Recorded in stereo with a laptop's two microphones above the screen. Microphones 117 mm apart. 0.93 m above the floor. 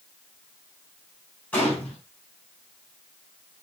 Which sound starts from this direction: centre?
A gunshot, at 1.5 s.